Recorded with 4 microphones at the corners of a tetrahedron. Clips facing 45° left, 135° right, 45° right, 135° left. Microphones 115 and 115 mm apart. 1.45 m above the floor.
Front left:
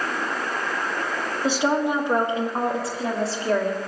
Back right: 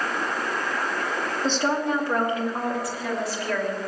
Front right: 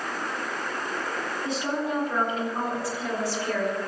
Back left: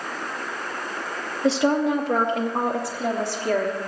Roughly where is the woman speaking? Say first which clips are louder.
Front left 3 dB, back left 10 dB; behind left.